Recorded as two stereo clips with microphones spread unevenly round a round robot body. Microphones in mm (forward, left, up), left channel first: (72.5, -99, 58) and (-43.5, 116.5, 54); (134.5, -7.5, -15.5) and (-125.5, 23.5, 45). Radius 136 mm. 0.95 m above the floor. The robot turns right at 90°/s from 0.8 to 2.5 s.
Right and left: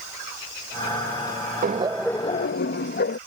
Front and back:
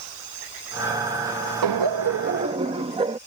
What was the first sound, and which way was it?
Laughter, 170° left.